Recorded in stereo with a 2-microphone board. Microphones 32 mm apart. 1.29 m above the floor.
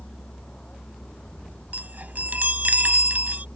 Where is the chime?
55° right (ahead or behind).